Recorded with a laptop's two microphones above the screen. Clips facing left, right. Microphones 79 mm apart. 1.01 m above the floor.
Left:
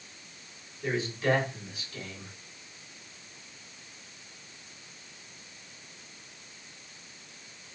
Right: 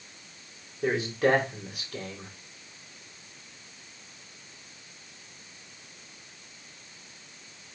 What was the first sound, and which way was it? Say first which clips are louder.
A man speaking: right 4 dB; 70° right (ahead or behind).